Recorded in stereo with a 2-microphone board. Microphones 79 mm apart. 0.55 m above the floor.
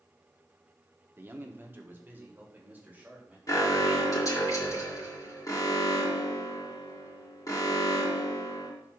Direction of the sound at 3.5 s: 50° left (ahead or behind).